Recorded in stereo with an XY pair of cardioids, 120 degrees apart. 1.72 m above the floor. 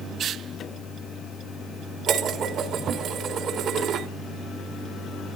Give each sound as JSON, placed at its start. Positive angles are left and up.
{"t": 2.1, "sound": "dishes clattering", "azimuth_deg": -65, "distance_m": 3.0}